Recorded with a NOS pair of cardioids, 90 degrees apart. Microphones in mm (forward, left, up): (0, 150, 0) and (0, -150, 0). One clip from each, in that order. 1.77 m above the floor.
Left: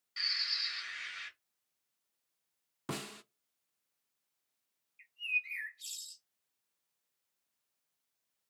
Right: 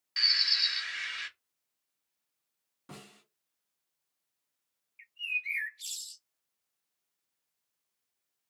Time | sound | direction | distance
0.2 | a bird | 65° right | 1.4 m
2.9 | a snare drum | 70° left | 0.6 m
5.0 | a bird | 35° right | 1.0 m